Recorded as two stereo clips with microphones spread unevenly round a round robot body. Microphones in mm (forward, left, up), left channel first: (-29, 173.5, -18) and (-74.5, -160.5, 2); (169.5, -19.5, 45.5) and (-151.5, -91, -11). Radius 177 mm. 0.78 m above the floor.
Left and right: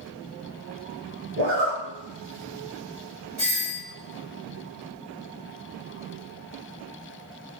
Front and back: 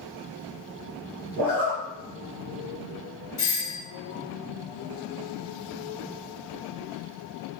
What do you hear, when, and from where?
1.4 s a zipper: 140° right, 0.7 m
3.4 s a doorbell: 20° right, 1.2 m